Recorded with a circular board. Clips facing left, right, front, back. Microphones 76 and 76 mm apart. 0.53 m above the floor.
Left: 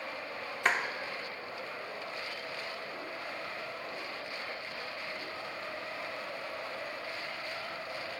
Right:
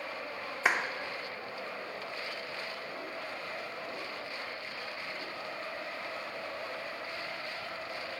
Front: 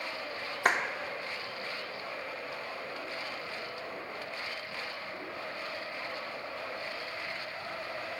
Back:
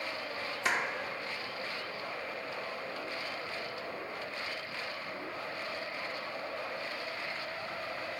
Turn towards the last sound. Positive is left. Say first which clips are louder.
# right 1 dB, front 4 dB
turn(degrees=-10)